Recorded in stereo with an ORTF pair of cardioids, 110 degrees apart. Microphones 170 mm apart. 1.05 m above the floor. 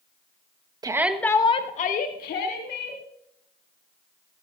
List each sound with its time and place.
0.8 s a shout: 25° right, 1.2 m; by 3.0 s 75° left, 3 m